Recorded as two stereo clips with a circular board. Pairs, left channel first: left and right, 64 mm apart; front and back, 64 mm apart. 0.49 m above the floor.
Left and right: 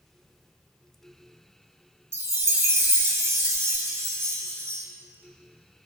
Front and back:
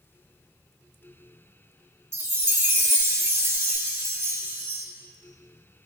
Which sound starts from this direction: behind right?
A chime, at 2.1 s.